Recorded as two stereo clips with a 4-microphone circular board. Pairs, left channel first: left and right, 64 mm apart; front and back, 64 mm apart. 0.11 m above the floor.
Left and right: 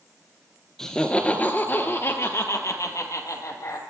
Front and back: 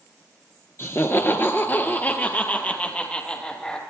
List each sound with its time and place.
0.8 s laughter: 15° left, 1.5 m; by 3.8 s 75° left, 3 m